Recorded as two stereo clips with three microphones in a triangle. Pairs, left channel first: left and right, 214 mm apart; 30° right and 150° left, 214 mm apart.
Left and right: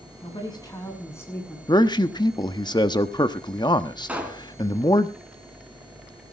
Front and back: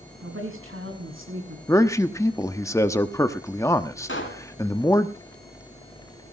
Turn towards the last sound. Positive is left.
turn(degrees=-5)